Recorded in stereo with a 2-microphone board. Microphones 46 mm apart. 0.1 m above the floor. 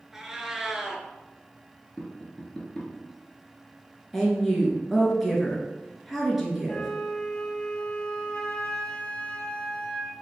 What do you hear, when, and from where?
0.1 s a cat meowing: 10° right (ahead or behind), 0.5 m
2.0 s tapping: 15° left (ahead or behind), 1.0 m
4.1 s a woman speaking: 5° right (ahead or behind), 1.1 m
6.7 s a flute: 20° left (ahead or behind), 0.8 m